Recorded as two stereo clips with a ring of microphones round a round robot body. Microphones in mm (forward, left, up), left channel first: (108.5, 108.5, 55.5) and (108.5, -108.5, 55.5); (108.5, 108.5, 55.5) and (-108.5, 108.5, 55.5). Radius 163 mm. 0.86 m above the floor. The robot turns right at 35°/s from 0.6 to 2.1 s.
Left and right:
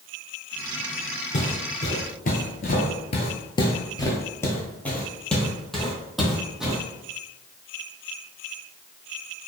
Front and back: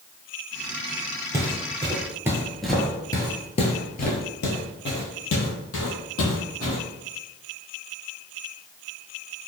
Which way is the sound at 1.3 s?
105° left.